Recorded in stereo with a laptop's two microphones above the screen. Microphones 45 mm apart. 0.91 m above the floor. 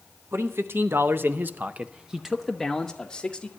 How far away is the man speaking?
About 1.0 m.